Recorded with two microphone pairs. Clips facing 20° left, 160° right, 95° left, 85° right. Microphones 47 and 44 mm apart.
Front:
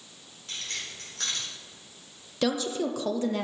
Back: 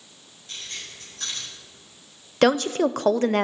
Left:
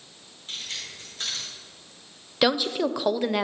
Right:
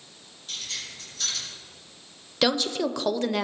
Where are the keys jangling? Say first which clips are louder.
Front 1 dB, even; 35° left, 4 m.